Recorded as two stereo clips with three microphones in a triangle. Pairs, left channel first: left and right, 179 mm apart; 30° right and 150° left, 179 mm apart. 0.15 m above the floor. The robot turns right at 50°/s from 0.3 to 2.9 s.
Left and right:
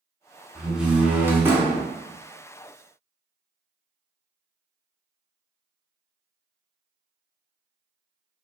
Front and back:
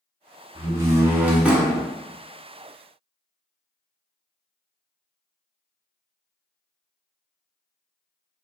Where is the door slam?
Straight behind, 0.7 m; by 1.9 s 115° right, 0.7 m.